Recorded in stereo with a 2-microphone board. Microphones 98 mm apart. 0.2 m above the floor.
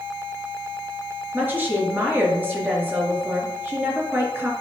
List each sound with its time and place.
1.3 s a woman speaking: 20° right (ahead or behind), 4 m